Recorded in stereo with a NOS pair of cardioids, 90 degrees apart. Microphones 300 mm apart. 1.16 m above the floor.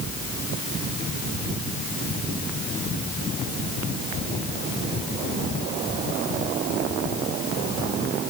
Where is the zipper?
I don't hear a zipper.